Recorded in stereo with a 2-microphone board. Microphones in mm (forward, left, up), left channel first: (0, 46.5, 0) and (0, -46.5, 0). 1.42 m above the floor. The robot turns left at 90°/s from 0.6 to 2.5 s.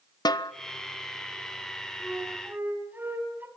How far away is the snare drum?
About 1.1 m.